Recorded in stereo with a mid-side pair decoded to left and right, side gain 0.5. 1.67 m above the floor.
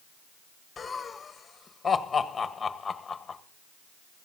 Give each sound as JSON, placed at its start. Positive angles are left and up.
{"t": 0.8, "sound": "laughter", "azimuth_deg": 30, "distance_m": 1.6}